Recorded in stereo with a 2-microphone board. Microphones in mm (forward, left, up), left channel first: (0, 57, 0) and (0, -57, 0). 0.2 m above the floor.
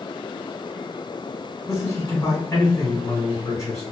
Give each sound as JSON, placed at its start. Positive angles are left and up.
{"t": 1.7, "sound": "a man speaking", "side_deg": 25, "distance_m": 1.8}